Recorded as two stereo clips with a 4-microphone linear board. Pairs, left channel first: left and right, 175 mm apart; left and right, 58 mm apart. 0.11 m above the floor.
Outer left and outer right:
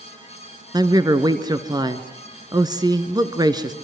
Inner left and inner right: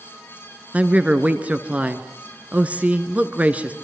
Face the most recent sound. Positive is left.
turn(degrees=-20)  # may be behind; listen again after turning